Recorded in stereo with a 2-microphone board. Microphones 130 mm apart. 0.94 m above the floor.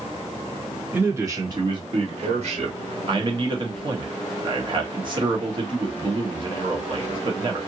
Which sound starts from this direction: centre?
A man speaking, at 0.9 s.